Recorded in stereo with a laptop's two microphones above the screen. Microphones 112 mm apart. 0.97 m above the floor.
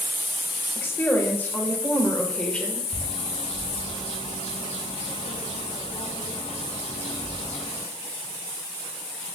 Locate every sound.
0.8 s a woman speaking: 20° left (ahead or behind), 4.5 m; by 2.8 s 10° left (ahead or behind), 4 m
2.9 s a bird: 80° left, 6 m